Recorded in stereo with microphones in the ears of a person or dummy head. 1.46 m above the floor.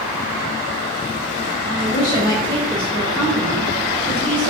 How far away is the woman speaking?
About 1.0 m.